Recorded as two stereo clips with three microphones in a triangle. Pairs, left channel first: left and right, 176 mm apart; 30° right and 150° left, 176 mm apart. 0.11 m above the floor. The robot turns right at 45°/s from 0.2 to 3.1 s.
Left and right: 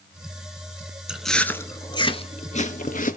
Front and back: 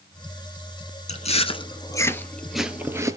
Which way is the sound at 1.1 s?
5° right.